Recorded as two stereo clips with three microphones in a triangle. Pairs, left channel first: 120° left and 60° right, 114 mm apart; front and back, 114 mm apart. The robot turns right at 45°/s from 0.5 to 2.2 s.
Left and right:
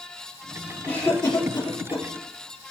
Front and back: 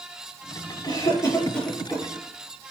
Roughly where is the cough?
Ahead left.